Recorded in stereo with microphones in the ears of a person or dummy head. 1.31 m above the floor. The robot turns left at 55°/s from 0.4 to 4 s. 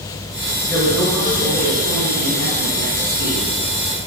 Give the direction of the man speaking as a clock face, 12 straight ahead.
12 o'clock.